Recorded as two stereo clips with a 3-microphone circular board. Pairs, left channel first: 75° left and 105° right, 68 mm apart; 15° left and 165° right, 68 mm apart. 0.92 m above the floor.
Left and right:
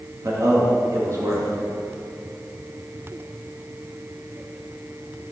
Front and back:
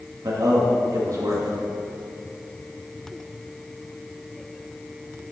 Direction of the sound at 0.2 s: 145° right.